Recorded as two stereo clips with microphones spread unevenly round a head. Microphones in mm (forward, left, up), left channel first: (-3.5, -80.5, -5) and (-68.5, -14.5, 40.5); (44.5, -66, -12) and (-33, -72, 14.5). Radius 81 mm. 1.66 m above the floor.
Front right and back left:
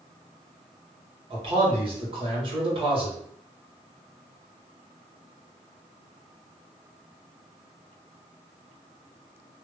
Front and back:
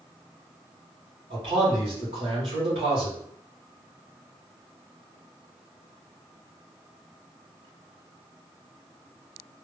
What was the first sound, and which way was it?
A man speaking, 160° left.